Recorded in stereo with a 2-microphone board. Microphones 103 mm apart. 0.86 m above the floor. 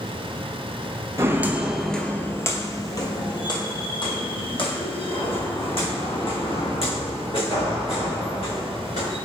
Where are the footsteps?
25° right (ahead or behind), 0.9 m; by 9.2 s 70° left (ahead or behind), 5.5 m.